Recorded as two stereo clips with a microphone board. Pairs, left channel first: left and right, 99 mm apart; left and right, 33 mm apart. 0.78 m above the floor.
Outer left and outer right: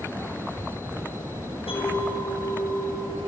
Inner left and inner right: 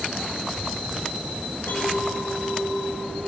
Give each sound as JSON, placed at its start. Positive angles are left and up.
{"t": 1.7, "sound": "a clink", "side_deg": 75, "distance_m": 6.5}